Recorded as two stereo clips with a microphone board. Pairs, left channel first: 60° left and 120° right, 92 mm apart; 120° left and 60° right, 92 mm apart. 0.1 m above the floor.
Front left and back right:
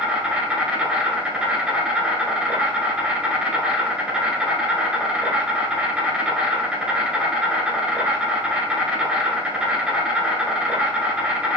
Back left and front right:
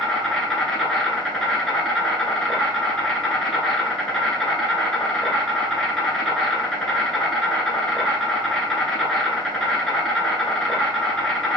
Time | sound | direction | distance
0.0 | an insect | 175° right | 0.8 m